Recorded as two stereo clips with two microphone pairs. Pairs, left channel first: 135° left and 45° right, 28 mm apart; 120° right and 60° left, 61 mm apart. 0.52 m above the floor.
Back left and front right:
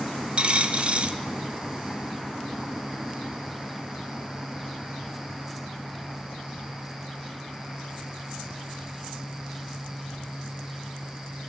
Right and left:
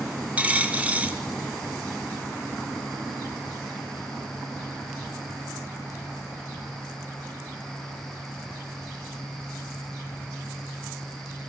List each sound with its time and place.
0.4 s a dropped coin: 5° right, 0.6 m